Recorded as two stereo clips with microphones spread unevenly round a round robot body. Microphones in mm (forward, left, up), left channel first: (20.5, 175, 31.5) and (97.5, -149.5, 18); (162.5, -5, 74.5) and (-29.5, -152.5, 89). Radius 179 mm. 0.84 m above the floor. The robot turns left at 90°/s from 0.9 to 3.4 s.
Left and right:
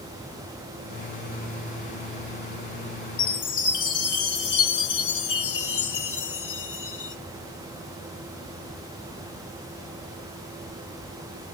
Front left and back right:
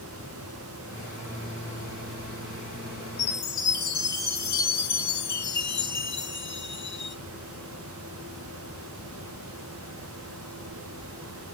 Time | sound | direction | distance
3.2 | a chime | 100° left | 1.3 m